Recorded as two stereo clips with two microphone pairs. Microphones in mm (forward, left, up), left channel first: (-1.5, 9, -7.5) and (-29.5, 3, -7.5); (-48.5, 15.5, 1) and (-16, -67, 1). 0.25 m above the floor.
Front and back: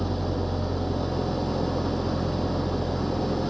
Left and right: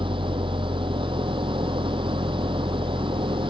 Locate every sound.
0.0 s an engine running: 75° right